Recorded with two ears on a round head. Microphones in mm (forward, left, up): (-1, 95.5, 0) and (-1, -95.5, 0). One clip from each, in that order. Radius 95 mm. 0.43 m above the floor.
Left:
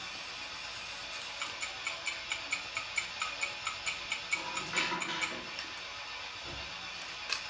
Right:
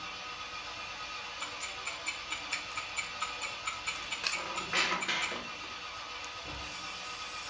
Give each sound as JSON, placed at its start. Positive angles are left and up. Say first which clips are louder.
{"t": 0.0, "sound": "an engine running", "louder": "right 1 dB", "side_deg": 25, "distance_m": 7.0}
{"t": 1.4, "sound": "ticking", "louder": "left 2 dB", "side_deg": 60, "distance_m": 3.0}
{"t": 4.3, "sound": "a squeak", "louder": "right 1 dB", "side_deg": -20, "distance_m": 2.0}